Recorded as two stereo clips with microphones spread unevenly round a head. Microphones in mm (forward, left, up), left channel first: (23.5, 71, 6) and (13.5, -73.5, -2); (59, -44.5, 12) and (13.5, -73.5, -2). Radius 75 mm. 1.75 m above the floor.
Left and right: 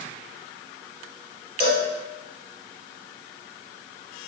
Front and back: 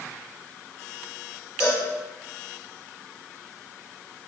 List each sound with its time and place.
1.6 s a cowbell: 50° left, 0.6 m